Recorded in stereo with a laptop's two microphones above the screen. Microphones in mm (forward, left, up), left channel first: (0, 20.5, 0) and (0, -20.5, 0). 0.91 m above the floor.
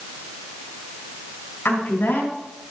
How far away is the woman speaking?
About 8 m.